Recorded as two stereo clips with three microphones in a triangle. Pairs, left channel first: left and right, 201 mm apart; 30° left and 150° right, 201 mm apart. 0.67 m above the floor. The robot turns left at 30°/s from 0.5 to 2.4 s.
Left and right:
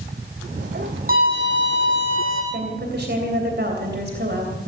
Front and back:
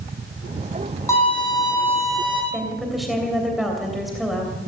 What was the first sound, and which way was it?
A violin, 45° right.